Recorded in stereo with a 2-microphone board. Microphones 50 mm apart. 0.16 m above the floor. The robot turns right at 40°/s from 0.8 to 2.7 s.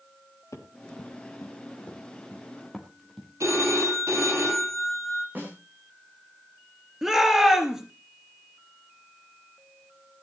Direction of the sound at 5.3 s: 40° right (ahead or behind).